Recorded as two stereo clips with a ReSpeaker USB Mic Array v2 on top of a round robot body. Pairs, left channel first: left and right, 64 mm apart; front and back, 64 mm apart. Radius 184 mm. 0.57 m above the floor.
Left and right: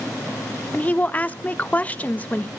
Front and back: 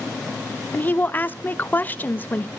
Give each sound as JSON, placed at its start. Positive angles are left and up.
{"t": 0.7, "sound": "a woman speaking", "azimuth_deg": 40, "distance_m": 1.1}